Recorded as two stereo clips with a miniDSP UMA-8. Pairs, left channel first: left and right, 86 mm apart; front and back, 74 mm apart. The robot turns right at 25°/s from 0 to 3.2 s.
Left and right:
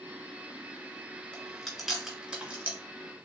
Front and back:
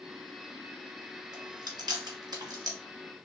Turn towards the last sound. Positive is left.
turn(degrees=-145)